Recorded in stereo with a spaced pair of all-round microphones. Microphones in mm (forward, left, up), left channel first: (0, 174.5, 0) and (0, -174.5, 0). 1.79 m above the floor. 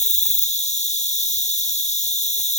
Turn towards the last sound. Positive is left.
turn(degrees=20)  # may be behind; listen again after turning